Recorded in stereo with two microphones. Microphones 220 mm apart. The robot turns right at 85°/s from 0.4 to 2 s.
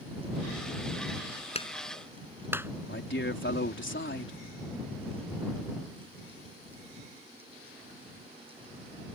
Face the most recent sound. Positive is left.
turn(degrees=60)  # may be behind; listen again after turning